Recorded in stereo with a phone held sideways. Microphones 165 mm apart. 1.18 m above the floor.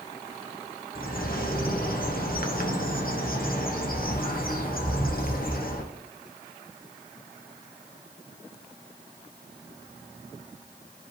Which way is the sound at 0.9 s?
60° left (ahead or behind).